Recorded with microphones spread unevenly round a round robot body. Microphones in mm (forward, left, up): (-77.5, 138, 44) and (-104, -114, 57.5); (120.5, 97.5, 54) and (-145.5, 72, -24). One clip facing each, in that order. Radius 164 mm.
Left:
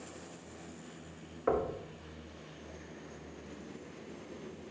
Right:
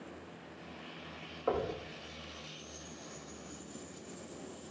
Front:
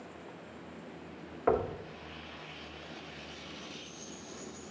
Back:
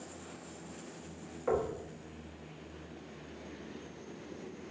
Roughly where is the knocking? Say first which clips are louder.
Left 2 dB, front 2 dB; ahead.